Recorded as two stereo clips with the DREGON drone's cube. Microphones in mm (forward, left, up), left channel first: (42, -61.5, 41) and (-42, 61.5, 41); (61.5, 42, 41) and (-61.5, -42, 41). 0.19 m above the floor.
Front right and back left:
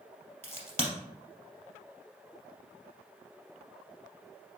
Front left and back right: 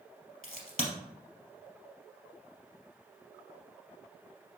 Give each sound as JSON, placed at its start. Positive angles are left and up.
{"t": 0.4, "sound": "a crack", "azimuth_deg": 20, "distance_m": 2.5}